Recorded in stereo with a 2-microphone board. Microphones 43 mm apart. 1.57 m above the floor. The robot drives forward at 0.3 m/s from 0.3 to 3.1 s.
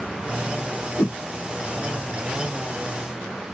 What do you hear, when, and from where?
1.0 s a whoosh: 75° left (ahead or behind), 0.6 m; by 1.1 s 80° left, 0.6 m